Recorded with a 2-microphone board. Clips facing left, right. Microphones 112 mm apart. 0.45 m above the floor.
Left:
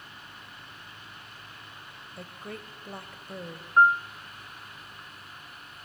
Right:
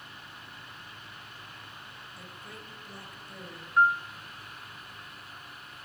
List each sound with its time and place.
2.2 s a woman speaking: 60° left (ahead or behind), 2.5 m
3.8 s a piano: 40° left (ahead or behind), 0.5 m